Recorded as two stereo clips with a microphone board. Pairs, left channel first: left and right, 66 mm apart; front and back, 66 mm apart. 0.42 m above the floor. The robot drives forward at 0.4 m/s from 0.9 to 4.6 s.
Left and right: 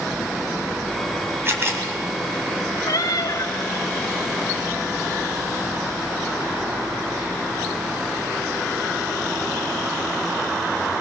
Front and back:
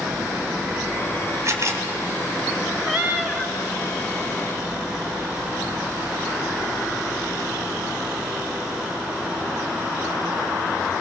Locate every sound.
1.4 s a camera shutter: 140° right, 2.5 m
2.9 s a cat meowing: 105° left, 1.4 m; by 3.5 s 115° left, 1.5 m